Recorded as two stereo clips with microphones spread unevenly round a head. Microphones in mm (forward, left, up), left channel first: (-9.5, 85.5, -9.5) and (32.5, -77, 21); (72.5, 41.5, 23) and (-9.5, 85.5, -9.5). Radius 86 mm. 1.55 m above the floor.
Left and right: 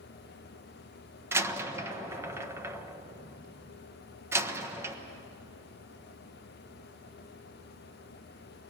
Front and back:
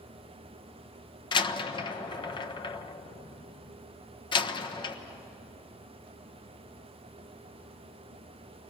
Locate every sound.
1.3 s a door slam: straight ahead, 1.2 m